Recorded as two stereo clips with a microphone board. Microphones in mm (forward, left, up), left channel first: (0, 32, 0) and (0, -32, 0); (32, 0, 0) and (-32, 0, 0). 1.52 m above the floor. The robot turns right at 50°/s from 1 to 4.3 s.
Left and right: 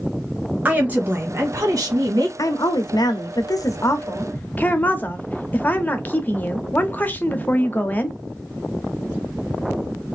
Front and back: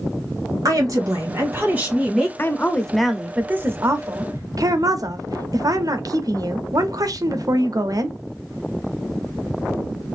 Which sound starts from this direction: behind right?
A woman speaking, at 0.7 s.